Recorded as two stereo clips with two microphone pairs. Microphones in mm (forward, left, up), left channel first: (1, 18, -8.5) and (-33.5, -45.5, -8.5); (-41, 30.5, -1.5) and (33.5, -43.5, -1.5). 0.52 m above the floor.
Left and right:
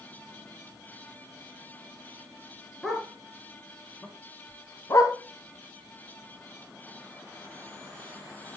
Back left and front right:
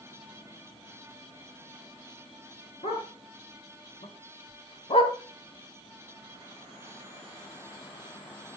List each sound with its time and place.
2.8 s a dog barking: 150° left, 1.9 m; by 5.2 s 95° left, 0.7 m